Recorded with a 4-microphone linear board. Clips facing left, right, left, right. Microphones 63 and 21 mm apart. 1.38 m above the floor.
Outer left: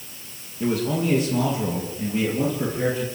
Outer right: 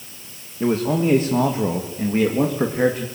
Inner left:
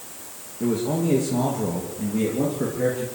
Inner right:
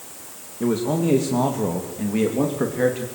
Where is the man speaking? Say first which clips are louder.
Outer right 4 dB, inner right 2 dB; 30° right (ahead or behind), 2 m; by 3.1 s 60° right (ahead or behind), 3 m.